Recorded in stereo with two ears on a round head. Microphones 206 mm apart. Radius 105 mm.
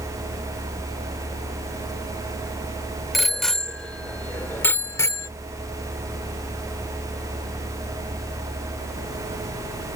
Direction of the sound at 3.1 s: Centre (ahead or behind).